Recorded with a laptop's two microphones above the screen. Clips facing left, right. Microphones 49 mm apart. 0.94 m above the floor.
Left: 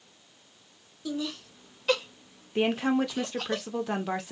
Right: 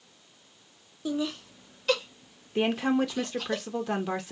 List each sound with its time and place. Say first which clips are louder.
1.1 s laughter: right 3 dB; 30° right (ahead or behind), 0.8 m; by 3.5 s 50° left (ahead or behind), 1.5 m
2.5 s a woman speaking: even; 5° left (ahead or behind), 0.8 m